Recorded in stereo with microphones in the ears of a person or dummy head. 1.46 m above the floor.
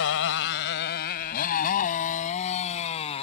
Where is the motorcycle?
75° left (ahead or behind); by 3.2 s 35° left (ahead or behind).